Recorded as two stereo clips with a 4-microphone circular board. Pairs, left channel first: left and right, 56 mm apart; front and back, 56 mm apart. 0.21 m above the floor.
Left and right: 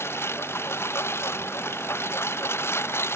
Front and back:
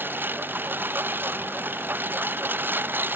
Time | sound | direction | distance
0.0 | a lawn mower | 130° left | ?